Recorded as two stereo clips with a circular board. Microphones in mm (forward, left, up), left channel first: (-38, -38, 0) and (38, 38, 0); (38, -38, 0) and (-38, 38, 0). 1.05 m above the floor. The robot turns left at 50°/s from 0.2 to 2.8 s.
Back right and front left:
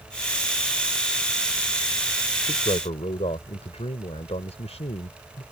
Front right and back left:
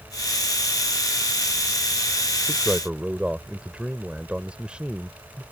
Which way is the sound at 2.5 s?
130° right.